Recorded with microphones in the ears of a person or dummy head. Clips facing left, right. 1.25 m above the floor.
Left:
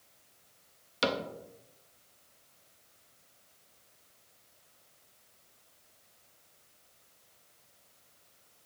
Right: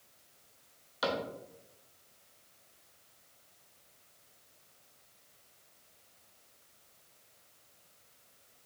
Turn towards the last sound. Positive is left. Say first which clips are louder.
# left 2 dB
turn(degrees=25)  # may be behind; listen again after turning